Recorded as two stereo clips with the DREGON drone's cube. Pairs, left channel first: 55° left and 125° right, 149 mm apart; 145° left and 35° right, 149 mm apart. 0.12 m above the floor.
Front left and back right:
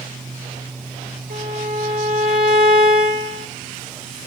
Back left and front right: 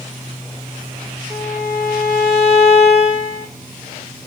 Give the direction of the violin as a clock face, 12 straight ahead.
4 o'clock.